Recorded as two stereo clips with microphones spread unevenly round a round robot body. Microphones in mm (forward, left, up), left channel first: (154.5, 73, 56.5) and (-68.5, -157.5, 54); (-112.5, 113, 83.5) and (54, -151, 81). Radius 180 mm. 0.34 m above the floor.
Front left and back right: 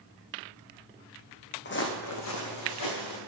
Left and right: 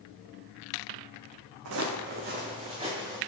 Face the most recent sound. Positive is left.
turn(degrees=20)